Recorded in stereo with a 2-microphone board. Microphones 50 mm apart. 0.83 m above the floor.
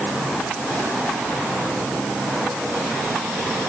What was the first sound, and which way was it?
Only background noise.